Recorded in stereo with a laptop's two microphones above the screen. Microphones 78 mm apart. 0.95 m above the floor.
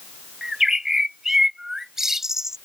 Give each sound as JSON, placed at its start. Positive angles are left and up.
{"t": 0.4, "sound": "a bird", "side_deg": -5}